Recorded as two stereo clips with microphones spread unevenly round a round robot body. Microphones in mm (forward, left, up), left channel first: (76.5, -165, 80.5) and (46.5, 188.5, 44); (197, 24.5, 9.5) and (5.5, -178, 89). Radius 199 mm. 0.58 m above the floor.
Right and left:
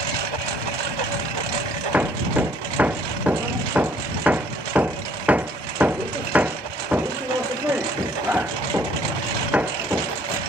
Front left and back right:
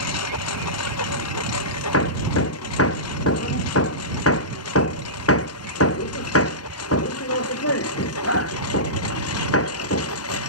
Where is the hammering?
10° left.